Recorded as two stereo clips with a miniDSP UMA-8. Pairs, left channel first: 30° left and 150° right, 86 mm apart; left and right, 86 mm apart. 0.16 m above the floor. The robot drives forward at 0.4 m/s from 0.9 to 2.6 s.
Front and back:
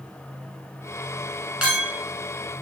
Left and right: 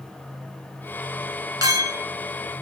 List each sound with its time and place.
1.6 s a clink: 85° right, 1.3 m; by 2.1 s 95° right, 1.3 m